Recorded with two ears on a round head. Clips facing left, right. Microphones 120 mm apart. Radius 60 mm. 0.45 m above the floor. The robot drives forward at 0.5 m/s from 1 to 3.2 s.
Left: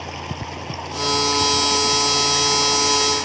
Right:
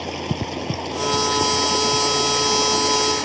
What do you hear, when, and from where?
0.0 s running water: 35° right (ahead or behind); by 3.2 s 40° right (ahead or behind)